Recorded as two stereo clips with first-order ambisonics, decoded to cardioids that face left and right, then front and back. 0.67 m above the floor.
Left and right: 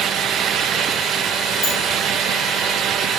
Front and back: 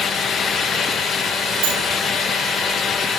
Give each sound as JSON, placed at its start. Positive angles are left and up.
{"t": 1.6, "sound": "a sliding door", "azimuth_deg": 165, "distance_m": 8.0}